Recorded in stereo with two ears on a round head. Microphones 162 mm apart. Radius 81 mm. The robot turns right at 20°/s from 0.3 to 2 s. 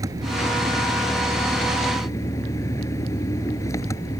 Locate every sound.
0.0 s an engine running: 20° right; by 4.2 s 15° left